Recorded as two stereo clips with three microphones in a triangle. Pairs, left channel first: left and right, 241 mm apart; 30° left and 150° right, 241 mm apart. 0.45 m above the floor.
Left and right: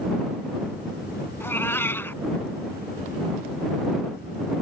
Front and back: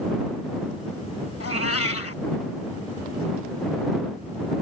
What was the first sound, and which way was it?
A cat meowing, 10° left.